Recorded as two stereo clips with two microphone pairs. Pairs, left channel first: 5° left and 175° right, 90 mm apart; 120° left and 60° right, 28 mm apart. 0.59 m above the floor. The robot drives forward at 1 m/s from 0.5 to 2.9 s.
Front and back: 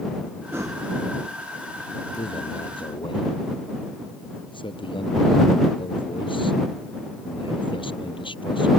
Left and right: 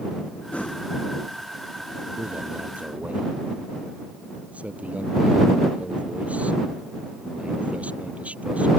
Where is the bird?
No bird in this recording.